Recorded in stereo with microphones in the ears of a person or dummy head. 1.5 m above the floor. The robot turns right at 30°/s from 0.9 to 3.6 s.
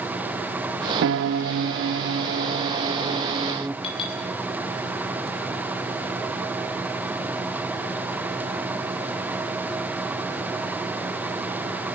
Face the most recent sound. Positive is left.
turn(degrees=35)  # may be behind; listen again after turning